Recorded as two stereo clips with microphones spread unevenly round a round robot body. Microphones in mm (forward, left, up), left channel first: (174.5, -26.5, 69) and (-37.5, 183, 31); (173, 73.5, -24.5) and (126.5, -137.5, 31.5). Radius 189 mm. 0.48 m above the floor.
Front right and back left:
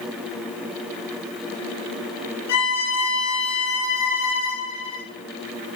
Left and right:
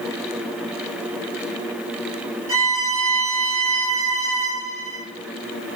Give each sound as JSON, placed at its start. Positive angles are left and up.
{"t": 2.5, "sound": "a violin", "azimuth_deg": -20, "distance_m": 4.0}